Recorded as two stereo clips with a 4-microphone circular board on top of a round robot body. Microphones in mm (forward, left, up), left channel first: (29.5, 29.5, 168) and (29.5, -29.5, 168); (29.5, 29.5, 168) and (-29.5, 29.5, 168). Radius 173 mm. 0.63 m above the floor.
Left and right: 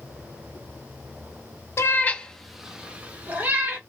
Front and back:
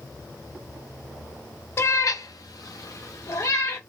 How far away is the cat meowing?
About 0.6 m.